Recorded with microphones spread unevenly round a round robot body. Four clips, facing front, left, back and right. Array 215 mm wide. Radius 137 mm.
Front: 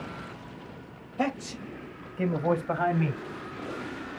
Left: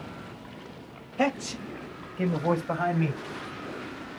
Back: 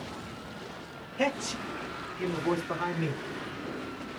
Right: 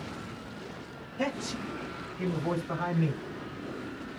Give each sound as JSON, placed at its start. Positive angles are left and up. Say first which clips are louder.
{"t": 1.2, "sound": "a man speaking", "louder": "left 5 dB, even", "azimuth_deg": 75, "distance_m": 4.0}